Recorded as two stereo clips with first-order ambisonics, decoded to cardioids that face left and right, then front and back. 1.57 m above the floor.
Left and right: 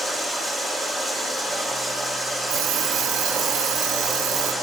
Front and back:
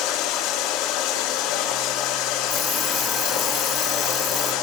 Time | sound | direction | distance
0.0 | running water | 5° left | 4 m
2.5 | an alarm clock | 85° right | 1.6 m